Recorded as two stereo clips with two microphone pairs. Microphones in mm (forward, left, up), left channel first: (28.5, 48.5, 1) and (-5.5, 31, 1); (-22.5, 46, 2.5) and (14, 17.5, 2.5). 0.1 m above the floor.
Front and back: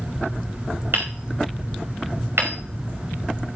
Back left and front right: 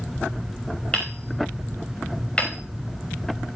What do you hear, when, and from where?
0.9 s hammering: 155° right, 5 m